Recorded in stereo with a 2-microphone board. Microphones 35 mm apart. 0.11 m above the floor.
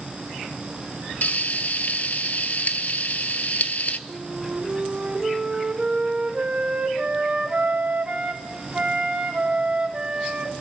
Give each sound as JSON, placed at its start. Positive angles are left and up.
{"t": 1.2, "sound": "frying", "side_deg": 50, "distance_m": 0.5}
{"t": 4.1, "sound": "a flute", "side_deg": -30, "distance_m": 1.5}